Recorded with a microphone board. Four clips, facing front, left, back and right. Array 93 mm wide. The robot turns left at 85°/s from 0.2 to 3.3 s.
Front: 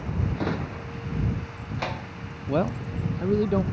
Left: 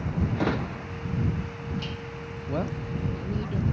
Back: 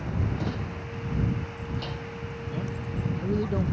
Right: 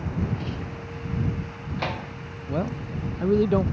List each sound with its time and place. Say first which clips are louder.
0.4 s a drawer: left 6 dB, front 4 dB; 70° left; by 2.1 s 80° right
2.5 s a man speaking: right 2 dB, front 11 dB; 5° left; by 3.6 s 65° right